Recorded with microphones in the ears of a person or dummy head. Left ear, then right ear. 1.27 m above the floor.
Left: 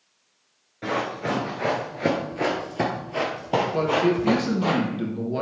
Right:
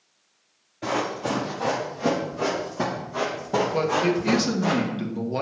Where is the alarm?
No alarm in this recording.